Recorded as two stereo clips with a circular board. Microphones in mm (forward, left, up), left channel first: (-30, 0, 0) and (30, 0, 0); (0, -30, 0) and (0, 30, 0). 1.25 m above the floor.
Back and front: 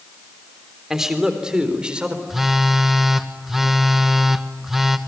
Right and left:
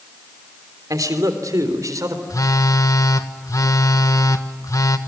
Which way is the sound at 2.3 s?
85° right.